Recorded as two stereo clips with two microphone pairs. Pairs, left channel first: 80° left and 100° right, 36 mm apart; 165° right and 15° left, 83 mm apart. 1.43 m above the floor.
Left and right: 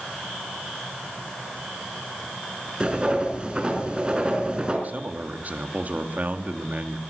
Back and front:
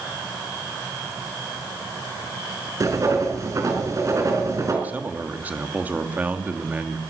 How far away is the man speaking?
About 2.5 m.